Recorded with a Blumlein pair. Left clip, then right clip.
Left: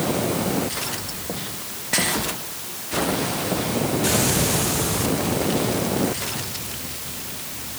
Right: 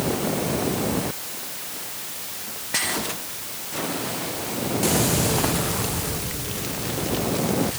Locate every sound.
Only background noise.